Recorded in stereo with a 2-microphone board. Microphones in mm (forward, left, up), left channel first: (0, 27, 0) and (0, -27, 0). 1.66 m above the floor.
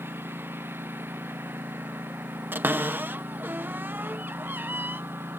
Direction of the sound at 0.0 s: 50° right (ahead or behind).